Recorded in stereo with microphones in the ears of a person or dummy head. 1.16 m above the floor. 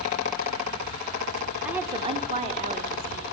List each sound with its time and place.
1.6 s a woman speaking: 5° right (ahead or behind), 1.2 m; by 3.2 s 45° right (ahead or behind), 3 m